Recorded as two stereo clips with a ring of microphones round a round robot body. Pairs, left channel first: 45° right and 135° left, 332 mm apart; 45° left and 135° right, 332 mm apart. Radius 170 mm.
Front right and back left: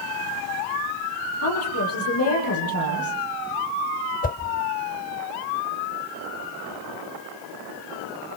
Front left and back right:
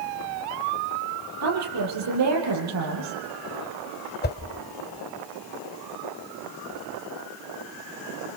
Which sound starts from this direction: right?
A woman speaking, at 1.4 s.